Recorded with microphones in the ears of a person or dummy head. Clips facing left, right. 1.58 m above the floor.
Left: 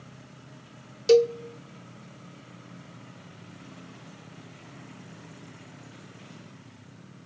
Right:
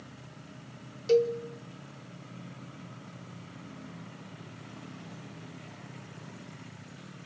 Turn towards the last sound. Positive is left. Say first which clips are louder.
# left 5 dB
turn(degrees=75)  # may be behind; listen again after turning